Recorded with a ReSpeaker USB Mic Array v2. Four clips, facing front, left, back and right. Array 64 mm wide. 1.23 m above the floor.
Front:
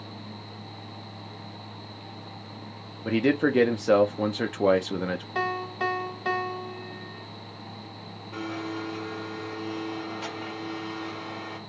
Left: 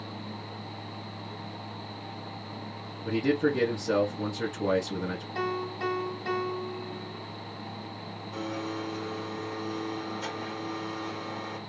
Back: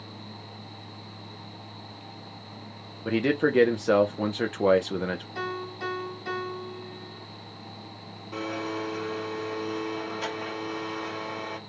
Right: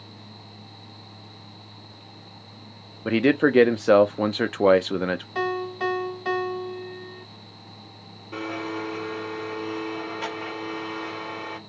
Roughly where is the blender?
Behind right.